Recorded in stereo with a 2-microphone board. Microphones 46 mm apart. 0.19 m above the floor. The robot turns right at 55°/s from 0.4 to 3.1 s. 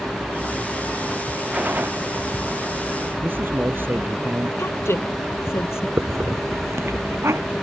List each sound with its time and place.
1.5 s a gunshot: 30° right (ahead or behind); by 1.9 s 55° right (ahead or behind)
3.2 s a man speaking: 50° right (ahead or behind)
4.6 s a woman speaking: 65° left (ahead or behind)
6.0 s a hiss: 80° right